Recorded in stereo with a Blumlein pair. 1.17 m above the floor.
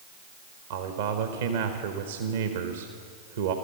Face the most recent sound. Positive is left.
turn(degrees=-60)